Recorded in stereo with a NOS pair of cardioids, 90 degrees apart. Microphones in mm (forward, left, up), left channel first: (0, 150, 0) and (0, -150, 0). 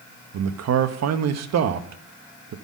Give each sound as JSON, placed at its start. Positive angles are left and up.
{"t": 0.3, "sound": "a man speaking", "azimuth_deg": -60, "distance_m": 1.0}